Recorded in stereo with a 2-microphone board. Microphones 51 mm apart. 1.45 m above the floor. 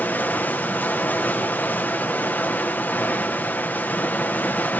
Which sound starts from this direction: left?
Running water, at 0.0 s.